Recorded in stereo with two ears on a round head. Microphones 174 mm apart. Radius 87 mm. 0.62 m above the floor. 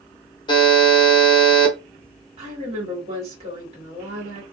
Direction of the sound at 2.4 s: 35° right (ahead or behind).